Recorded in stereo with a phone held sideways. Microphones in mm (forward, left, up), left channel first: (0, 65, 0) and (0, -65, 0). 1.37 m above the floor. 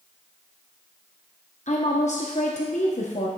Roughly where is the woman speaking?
Left.